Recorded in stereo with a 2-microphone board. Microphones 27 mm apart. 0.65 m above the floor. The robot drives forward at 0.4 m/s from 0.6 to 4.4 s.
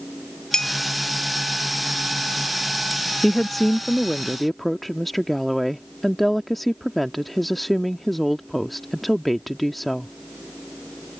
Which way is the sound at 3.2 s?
5° left (ahead or behind).